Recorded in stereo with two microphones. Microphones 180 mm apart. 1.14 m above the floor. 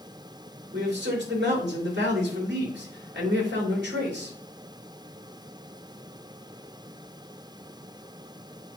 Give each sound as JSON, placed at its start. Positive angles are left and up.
{"t": 0.7, "sound": "a man speaking", "side_deg": -80, "distance_m": 3.0}